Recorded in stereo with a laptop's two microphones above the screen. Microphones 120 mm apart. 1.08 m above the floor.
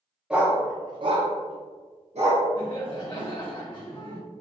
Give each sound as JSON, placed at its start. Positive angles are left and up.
{"t": 0.3, "sound": "a dog barking", "side_deg": -5, "distance_m": 0.5}
{"t": 2.6, "sound": "laughter", "side_deg": 40, "distance_m": 0.8}